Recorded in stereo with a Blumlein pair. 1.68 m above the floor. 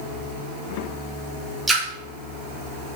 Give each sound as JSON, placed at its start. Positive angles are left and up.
{"t": 1.7, "sound": "a splash", "azimuth_deg": -5, "distance_m": 1.3}